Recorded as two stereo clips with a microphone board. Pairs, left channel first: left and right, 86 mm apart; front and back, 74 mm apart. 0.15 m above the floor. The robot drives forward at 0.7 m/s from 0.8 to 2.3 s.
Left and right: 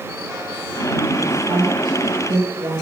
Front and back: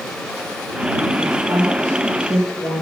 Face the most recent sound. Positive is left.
turn(degrees=-125)